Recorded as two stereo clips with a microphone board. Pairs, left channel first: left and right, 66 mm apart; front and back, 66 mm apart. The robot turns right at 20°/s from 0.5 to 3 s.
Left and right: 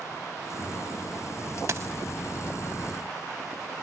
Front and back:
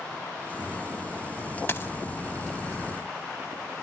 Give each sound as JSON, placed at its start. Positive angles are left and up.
{"t": 1.7, "sound": "a dropped coin", "azimuth_deg": -50}